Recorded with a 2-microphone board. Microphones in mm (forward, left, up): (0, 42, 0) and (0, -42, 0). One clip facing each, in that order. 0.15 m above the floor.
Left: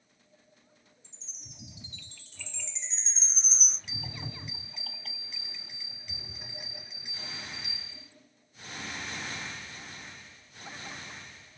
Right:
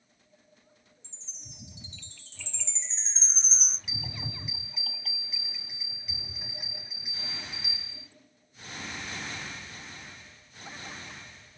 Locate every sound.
1.0 s a chime: 30° right (ahead or behind), 2.5 m
3.9 s a bell: 5° right (ahead or behind), 3 m